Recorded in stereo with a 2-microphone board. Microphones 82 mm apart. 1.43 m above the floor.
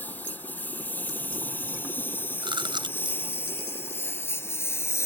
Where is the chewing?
75° right (ahead or behind).